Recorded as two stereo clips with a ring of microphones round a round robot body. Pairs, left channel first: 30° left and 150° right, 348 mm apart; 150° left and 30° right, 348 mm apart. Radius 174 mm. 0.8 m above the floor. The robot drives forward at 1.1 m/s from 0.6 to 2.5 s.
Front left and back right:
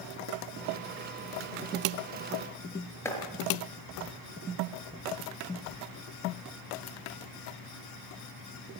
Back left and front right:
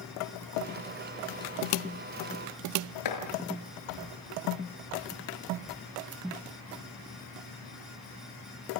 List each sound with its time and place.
3.0 s chopping: 115° left, 5 m